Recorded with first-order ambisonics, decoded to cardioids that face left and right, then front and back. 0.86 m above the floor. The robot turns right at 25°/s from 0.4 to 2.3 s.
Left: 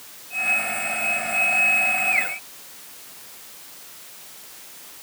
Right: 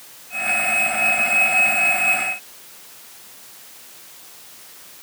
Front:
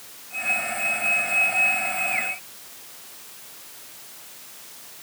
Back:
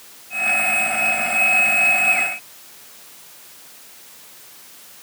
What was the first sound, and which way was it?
Only background noise.